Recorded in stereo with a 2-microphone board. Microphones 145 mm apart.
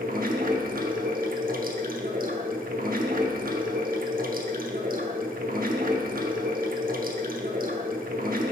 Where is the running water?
80° right, 0.8 m.